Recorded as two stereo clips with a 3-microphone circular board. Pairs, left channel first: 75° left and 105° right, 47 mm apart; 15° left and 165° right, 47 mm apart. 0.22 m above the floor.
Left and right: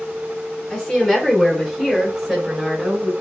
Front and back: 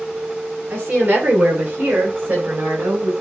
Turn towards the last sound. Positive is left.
turn(degrees=165)